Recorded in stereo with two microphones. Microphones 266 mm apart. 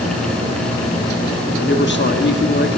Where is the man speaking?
45° left (ahead or behind), 1.2 m.